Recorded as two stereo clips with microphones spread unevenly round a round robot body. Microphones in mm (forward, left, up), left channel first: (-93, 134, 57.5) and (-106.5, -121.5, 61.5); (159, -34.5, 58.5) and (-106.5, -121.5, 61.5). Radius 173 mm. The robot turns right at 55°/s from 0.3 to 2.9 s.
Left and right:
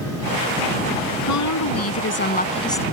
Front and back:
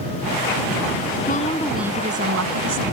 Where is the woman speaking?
80° left; by 2.8 s 170° left.